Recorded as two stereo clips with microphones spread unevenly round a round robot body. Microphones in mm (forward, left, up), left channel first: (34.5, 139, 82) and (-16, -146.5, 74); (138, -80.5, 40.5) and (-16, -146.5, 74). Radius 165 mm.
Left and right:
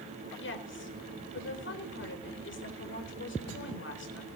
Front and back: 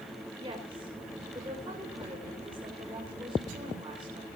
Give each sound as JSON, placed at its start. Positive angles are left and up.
{"t": 0.4, "sound": "a woman speaking", "azimuth_deg": 130, "distance_m": 4.0}